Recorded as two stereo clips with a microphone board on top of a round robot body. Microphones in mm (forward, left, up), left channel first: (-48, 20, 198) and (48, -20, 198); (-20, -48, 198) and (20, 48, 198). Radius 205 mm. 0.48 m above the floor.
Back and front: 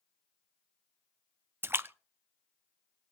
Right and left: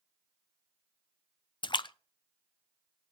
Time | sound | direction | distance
1.6 | a splash | 85° right | 0.7 m